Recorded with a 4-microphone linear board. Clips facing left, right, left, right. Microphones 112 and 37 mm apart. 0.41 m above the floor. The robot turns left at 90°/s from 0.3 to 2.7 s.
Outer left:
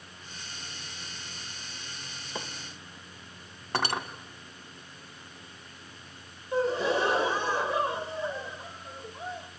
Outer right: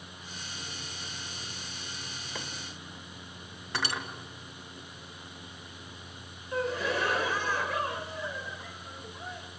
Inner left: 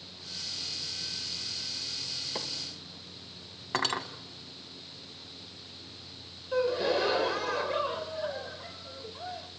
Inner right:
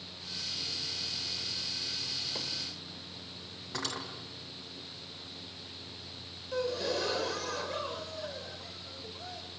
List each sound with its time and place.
2.4 s a microwave: 20° left (ahead or behind), 1.5 m; by 2.5 s 25° left (ahead or behind), 1.5 m
3.7 s cutlery clinking: 50° left (ahead or behind), 1.7 m
6.5 s a gasp: 25° left (ahead or behind), 0.7 m